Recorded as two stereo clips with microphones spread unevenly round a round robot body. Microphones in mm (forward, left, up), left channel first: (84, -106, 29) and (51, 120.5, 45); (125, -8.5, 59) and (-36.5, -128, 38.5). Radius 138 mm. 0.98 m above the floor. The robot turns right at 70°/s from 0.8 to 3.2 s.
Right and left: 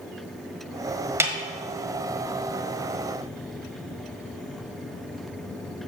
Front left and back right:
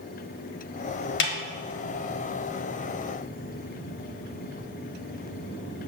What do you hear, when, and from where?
1.2 s a snare drum: 20° left, 1.4 m; by 1.3 s 30° left, 1.4 m